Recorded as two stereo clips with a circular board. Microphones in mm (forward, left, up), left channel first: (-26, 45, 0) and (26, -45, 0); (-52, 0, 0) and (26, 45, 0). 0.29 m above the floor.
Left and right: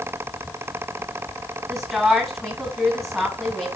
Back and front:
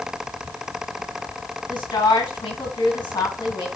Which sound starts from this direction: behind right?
A woman speaking, at 1.7 s.